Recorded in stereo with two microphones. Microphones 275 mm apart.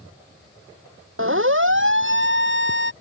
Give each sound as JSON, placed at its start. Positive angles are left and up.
{"t": 1.2, "sound": "a siren", "side_deg": -50}